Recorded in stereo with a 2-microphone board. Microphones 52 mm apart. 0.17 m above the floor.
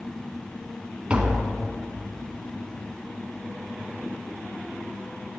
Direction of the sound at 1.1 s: 25° right (ahead or behind).